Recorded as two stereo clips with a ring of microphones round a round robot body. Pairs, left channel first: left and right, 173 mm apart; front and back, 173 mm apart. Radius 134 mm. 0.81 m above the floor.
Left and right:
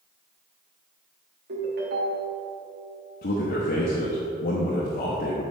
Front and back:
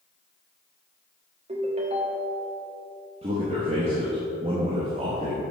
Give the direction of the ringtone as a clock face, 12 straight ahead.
4 o'clock.